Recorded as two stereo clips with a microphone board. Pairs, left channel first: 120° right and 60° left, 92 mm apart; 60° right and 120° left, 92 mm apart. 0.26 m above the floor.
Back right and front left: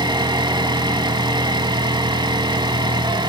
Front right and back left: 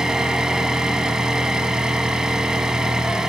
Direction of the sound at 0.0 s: 40° left.